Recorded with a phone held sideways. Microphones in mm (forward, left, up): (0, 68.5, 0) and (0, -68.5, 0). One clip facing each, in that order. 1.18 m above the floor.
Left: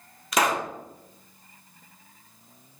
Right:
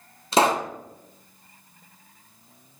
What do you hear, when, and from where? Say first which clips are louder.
0.3 s a pop: right 4 dB; 30° right (ahead or behind), 0.6 m